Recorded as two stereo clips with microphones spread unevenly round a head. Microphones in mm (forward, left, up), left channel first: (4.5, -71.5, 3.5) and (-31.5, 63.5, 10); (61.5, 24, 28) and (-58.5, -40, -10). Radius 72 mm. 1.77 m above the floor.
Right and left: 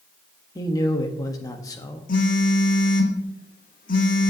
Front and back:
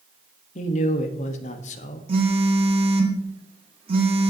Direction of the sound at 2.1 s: 100° right.